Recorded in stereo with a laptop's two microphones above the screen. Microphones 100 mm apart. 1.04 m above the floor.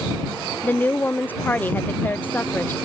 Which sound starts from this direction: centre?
A woman speaking, at 0.6 s.